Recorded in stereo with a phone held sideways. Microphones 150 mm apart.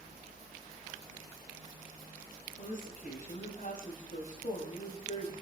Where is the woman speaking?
65° left (ahead or behind), 5.5 m.